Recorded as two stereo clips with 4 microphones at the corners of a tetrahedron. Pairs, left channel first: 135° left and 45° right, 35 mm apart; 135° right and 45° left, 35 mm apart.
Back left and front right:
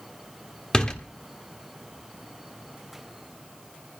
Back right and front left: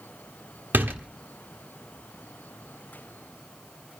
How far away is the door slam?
About 1.4 m.